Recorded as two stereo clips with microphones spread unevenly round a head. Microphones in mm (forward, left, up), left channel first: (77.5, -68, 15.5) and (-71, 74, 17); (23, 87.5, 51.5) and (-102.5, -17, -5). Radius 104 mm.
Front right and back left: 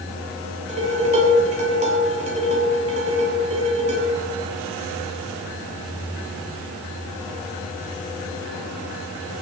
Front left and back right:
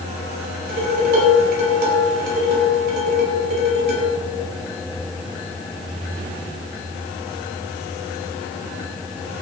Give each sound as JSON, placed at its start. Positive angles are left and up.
{"t": 0.7, "sound": "dishes clattering", "azimuth_deg": -165, "distance_m": 6.5}